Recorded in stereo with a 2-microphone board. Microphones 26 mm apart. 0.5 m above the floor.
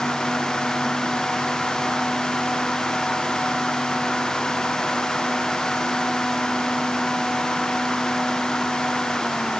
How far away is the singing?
I don't hear singing.